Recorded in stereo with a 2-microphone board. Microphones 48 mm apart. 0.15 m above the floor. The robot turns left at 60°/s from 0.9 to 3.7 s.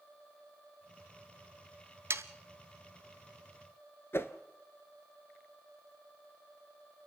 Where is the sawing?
60° right (ahead or behind), 0.8 m.